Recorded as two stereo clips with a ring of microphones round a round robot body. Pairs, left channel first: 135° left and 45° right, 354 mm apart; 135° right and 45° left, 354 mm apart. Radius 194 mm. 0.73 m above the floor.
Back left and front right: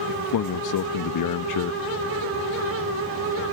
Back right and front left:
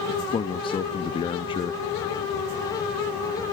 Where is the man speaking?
150° left.